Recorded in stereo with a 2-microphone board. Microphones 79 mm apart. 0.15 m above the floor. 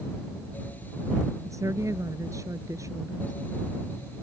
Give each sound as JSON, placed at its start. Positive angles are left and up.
{"t": 1.4, "sound": "a woman speaking", "side_deg": -45}